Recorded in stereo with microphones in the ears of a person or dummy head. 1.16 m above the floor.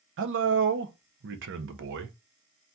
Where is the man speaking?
60° right (ahead or behind), 0.6 m.